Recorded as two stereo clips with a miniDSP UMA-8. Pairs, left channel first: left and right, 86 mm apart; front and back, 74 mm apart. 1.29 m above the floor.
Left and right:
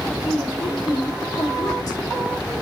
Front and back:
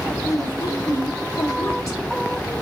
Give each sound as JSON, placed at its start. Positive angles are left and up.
{"t": 0.2, "sound": "a woman speaking", "azimuth_deg": 50, "distance_m": 3.5}